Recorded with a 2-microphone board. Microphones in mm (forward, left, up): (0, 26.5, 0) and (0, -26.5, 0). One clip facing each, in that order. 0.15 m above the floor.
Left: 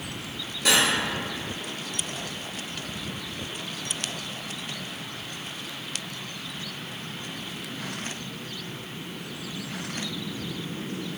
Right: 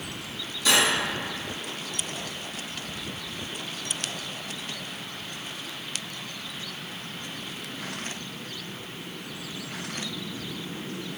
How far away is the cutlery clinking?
About 1.6 m.